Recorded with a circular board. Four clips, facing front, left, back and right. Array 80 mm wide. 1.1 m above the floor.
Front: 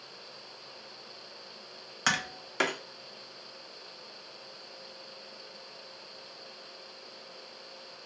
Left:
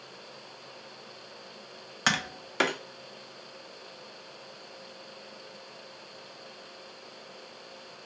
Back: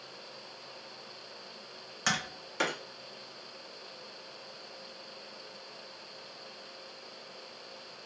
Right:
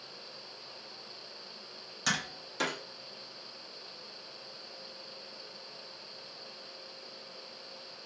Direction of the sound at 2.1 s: 70° left.